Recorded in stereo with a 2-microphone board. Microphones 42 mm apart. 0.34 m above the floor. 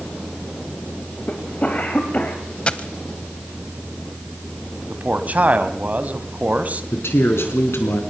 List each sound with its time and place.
1.3 s a cough: 35° left (ahead or behind), 2 m
2.7 s a dropped coin: 25° left (ahead or behind), 0.9 m
4.9 s a man speaking: 40° right (ahead or behind), 1.8 m
6.9 s a man speaking: 70° left (ahead or behind), 4 m